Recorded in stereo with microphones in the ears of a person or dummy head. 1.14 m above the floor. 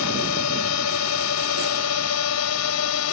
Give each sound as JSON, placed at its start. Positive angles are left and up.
{"t": 0.0, "sound": "a drone", "side_deg": 75}